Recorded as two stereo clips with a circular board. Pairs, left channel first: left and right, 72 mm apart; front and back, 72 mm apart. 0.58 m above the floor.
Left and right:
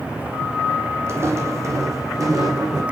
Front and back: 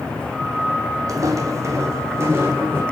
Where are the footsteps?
140° right, 1.7 m; by 2.8 s 120° right, 2.5 m.